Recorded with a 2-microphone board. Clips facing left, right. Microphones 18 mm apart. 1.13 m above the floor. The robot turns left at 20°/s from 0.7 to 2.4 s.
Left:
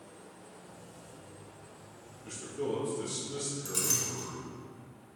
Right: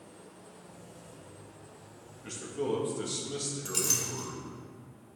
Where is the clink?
25° right (ahead or behind), 1.4 m.